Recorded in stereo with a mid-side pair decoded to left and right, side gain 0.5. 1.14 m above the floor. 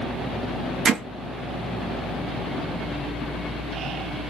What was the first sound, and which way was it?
Hammering, 45° right.